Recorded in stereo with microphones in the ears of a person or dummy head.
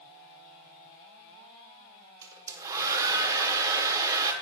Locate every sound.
2.2 s a hair dryer: 20° right (ahead or behind), 1.0 m